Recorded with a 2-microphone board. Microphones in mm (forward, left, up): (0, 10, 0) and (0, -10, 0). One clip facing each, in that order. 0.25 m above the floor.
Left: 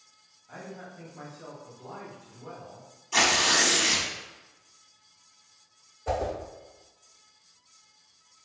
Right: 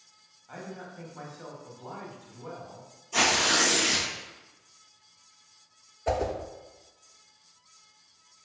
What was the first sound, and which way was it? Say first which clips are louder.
A man speaking: right 1 dB; 25° right (ahead or behind).